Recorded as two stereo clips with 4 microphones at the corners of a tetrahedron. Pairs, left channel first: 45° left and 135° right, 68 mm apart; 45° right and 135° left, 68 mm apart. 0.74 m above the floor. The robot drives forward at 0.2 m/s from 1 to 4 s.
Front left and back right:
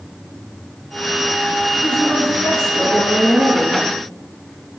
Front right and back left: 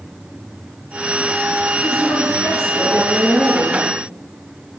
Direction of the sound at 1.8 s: 25° right.